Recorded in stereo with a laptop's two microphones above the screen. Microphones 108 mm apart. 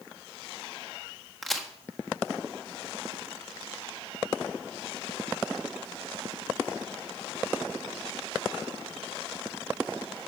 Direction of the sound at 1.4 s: Centre (ahead or behind).